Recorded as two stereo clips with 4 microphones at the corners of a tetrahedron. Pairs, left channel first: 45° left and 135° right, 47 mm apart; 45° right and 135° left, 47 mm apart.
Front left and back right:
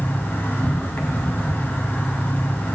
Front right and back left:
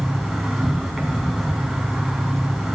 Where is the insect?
50° left, 3 m.